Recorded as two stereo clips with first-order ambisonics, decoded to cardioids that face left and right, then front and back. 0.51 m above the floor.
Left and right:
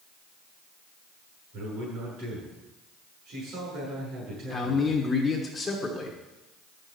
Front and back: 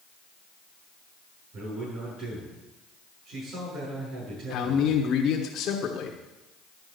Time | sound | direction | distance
1.5 | a man speaking | 135° right | 7 m
4.5 | a man speaking | 25° left | 1.3 m